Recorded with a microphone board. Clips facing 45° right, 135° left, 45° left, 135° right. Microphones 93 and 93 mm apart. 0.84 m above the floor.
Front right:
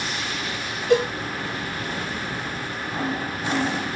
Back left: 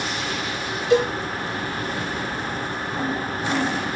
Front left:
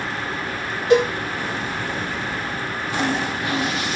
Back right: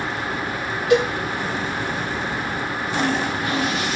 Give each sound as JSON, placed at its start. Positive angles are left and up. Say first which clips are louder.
{"t": 0.9, "sound": "a cowbell", "louder": "back left 1 dB, front left 2 dB", "azimuth_deg": -10, "distance_m": 1.4}